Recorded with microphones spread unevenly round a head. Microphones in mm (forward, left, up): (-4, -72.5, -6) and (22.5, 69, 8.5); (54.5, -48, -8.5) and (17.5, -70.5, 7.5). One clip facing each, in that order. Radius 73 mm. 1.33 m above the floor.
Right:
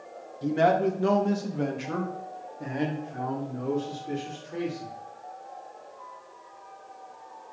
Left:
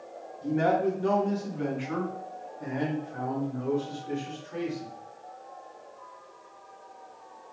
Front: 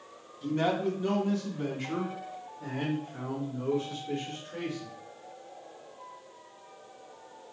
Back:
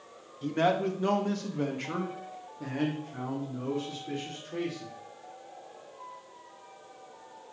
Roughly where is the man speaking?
Behind right.